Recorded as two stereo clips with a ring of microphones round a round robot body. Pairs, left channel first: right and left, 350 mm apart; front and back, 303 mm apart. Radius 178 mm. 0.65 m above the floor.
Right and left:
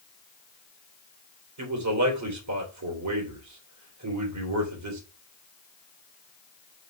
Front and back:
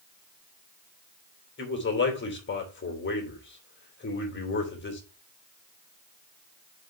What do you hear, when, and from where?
1.6 s a man speaking: 50° left, 3 m